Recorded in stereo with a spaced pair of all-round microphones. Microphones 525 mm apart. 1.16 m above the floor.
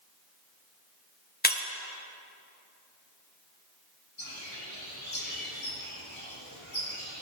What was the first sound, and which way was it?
Breaking glass, 20° left (ahead or behind).